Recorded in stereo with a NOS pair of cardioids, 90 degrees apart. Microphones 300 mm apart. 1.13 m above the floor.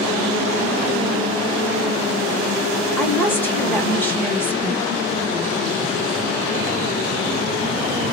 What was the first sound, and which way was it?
A woman speaking, 10° left.